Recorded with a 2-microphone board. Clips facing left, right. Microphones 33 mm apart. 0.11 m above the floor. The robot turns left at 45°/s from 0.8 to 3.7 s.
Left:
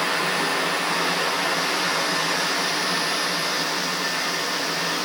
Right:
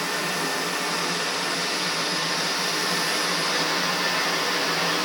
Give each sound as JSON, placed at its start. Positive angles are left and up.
{"t": 0.0, "sound": "running water", "azimuth_deg": 135, "distance_m": 6.5}